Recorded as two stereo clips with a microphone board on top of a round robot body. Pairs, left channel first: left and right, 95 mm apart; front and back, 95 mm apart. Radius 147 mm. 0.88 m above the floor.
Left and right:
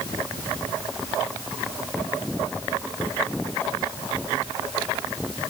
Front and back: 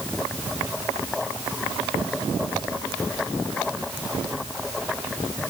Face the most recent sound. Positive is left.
No sound to turn to.